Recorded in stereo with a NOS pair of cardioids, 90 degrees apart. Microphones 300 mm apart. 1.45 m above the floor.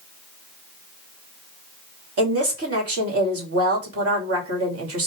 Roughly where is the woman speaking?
Ahead right.